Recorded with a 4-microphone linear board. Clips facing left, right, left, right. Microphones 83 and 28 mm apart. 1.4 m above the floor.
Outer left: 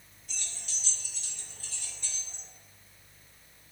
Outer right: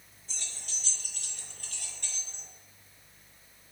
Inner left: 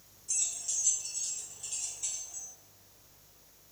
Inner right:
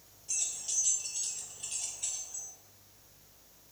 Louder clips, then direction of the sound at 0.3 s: Even, even; 30° right (ahead or behind).